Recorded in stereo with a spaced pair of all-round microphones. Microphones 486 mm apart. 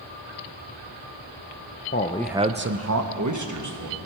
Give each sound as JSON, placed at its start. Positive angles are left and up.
{"t": 1.9, "sound": "a man speaking", "side_deg": 25, "distance_m": 0.6}